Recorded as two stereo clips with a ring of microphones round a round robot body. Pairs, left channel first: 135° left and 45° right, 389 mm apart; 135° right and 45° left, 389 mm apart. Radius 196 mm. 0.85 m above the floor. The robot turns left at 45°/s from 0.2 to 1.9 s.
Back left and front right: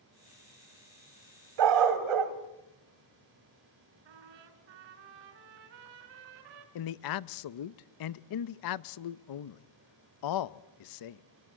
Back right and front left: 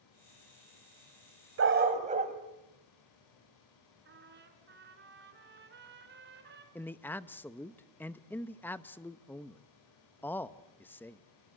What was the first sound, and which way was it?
A dog barking, 15° right.